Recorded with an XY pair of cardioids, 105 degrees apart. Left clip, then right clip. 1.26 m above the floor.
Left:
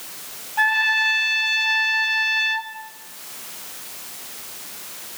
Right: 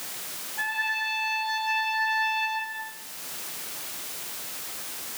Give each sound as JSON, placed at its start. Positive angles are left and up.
{"t": 0.6, "sound": "a trumpet", "azimuth_deg": 70, "distance_m": 1.8}